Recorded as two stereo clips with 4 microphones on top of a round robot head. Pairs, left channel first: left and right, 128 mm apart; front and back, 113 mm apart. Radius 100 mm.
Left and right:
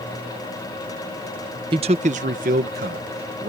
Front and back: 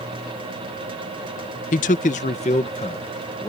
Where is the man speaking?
25° right; by 3.5 s 60° right.